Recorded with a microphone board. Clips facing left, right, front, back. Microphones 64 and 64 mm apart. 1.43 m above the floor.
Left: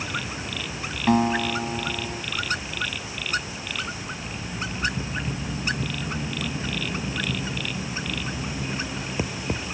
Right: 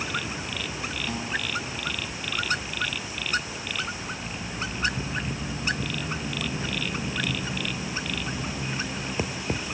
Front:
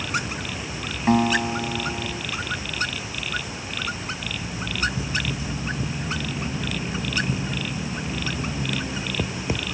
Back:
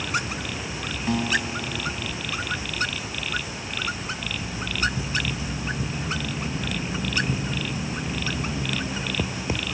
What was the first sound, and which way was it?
A guitar, 50° left.